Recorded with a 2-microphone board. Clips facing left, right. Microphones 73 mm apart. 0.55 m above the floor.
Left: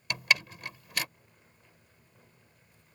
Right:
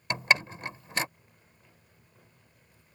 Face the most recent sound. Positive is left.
turn(degrees=-30)  # may be behind; listen again after turning